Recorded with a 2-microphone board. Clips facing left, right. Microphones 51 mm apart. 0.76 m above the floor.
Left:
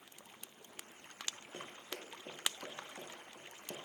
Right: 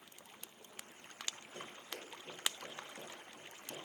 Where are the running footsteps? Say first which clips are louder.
Left 1 dB; 80° left, 9.5 m; by 3.8 s 75° left (ahead or behind), 10 m.